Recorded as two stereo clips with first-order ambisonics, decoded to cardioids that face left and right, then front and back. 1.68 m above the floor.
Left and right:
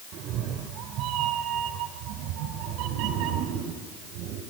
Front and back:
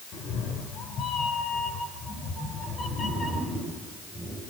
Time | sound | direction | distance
0.1 | a cat meowing | 45° right | 3.5 m